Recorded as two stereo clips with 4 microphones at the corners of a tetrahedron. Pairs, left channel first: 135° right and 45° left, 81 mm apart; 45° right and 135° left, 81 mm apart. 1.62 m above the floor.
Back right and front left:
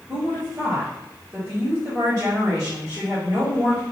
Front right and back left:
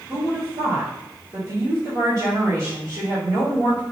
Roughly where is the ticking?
No ticking in this recording.